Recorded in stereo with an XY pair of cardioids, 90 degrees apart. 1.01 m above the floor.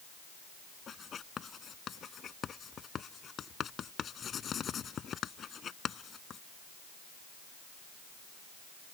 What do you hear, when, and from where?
0.9 s writing: 55° left